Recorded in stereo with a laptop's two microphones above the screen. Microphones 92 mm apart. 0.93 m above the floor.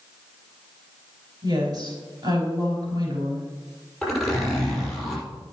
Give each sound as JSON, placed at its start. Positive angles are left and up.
{"t": 1.4, "sound": "a woman speaking", "side_deg": -50, "distance_m": 5.5}
{"t": 4.0, "sound": "a zipper", "side_deg": 0, "distance_m": 6.0}